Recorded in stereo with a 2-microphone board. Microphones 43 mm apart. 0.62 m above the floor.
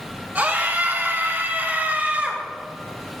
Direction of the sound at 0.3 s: 50° right (ahead or behind).